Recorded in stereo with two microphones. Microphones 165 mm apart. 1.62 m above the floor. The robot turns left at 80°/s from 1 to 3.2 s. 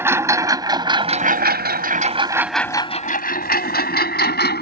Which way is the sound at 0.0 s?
15° right (ahead or behind).